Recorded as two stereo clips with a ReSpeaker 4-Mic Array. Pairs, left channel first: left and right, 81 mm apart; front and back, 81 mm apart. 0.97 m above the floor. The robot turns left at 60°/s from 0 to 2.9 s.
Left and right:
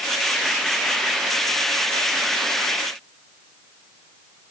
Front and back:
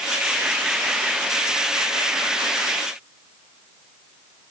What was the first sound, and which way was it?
Only background noise.